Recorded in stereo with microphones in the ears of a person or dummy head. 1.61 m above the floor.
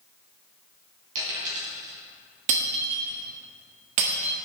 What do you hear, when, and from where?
1.1 s a dropped coin: 40° right (ahead or behind), 4 m
2.5 s breaking glass: 45° right (ahead or behind), 1.4 m